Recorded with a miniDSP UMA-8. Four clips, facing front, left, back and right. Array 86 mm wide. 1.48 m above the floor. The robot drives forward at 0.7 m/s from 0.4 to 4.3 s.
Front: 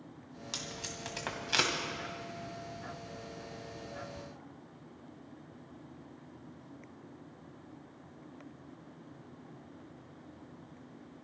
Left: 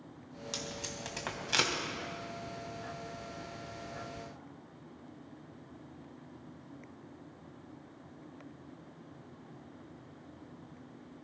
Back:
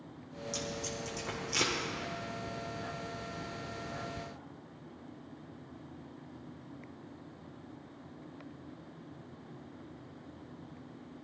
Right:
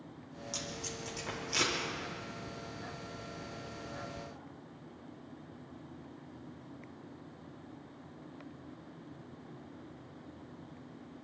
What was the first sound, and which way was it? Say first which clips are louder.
Tape being pulled: even, back 5 dB; 35° left.